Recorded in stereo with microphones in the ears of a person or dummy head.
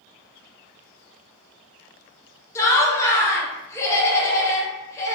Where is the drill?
I don't hear a drill.